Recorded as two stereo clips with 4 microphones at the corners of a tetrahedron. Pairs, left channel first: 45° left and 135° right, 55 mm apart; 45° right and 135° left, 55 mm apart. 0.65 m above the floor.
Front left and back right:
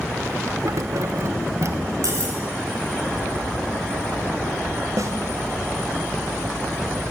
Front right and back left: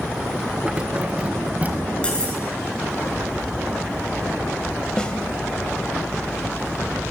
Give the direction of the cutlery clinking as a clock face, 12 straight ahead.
4 o'clock.